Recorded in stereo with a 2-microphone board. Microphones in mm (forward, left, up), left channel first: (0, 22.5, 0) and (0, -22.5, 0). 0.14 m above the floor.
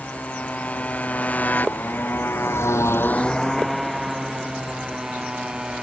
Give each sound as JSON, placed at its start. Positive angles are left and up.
{"t": 0.0, "sound": "a motorcycle", "side_deg": 25}